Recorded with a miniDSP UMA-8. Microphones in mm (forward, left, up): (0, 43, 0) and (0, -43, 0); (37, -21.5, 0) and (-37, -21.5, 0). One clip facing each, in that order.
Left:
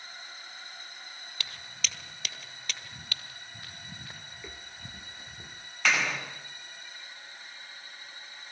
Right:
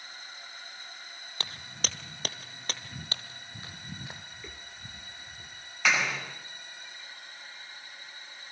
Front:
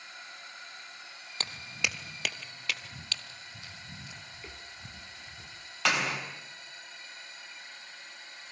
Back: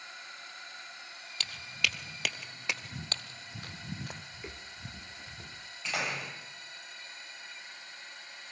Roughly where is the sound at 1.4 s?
Ahead right.